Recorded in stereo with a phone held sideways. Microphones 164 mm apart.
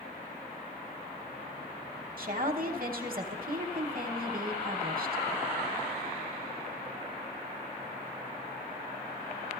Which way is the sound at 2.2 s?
60° right (ahead or behind).